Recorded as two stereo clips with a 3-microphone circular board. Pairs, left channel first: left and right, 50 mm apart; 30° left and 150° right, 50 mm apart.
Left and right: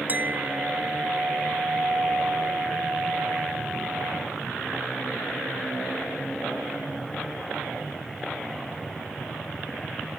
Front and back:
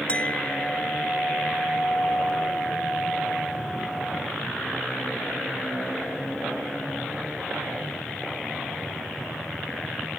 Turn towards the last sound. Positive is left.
turn(degrees=-35)